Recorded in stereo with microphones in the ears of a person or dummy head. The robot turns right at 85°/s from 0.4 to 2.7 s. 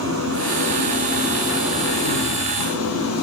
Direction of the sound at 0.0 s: 110° right.